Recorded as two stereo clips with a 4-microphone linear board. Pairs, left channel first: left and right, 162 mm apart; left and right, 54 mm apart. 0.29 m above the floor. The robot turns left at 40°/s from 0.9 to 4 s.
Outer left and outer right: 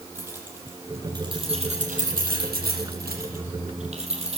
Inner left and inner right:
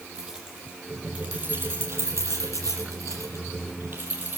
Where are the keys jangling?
15° right (ahead or behind), 7.5 m; by 4.4 s 40° right (ahead or behind), 7.5 m.